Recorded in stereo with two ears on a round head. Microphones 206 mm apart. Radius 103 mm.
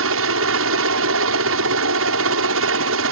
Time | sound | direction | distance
0.0 | a helicopter | 60° right (ahead or behind) | ?